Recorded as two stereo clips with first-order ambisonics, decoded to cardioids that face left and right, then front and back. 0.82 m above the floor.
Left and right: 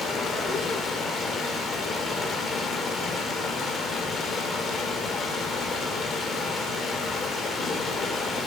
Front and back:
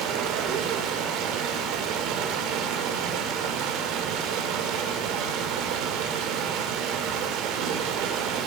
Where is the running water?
160° left, 1.1 m.